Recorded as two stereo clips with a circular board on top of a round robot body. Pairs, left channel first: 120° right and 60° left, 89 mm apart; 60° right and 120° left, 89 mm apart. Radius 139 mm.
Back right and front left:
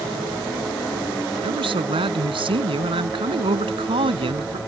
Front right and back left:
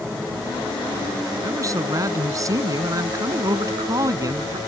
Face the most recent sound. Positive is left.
turn(degrees=70)